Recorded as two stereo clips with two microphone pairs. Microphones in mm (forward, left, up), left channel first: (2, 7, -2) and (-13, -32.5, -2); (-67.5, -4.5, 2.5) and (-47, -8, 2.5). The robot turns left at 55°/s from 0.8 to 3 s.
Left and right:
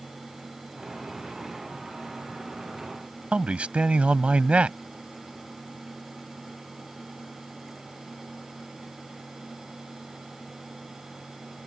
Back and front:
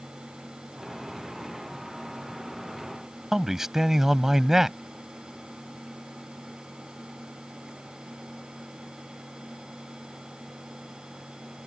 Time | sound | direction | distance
3.3 | a man speaking | 70° right | ?